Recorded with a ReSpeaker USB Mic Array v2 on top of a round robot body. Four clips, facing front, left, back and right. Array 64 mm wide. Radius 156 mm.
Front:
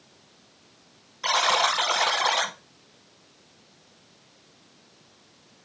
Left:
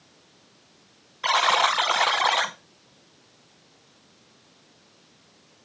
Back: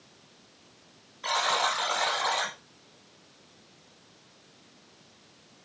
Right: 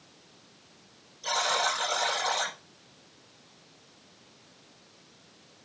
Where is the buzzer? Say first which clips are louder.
Left 8 dB, front 4 dB; 75° left, 0.7 m.